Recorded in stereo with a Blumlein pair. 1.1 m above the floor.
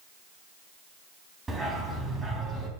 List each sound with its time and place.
1.5 s a dog barking: 15° right, 3.5 m